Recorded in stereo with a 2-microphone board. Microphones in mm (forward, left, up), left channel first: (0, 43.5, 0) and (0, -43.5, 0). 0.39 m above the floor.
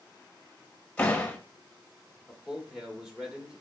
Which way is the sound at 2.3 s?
5° right (ahead or behind).